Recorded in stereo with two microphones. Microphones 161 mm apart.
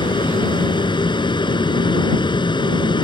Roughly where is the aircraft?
Left.